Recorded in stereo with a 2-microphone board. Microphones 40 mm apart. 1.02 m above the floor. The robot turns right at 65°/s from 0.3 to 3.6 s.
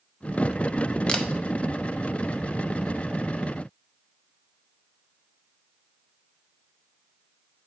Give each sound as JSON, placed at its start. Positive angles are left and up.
{"t": 1.1, "sound": "a camera shutter", "side_deg": 25, "distance_m": 0.6}